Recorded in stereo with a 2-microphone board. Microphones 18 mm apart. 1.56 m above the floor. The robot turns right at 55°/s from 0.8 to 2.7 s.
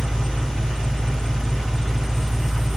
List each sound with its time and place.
0.0 s an engine running: 75° left, 1.9 m; by 2.8 s straight behind, 1.9 m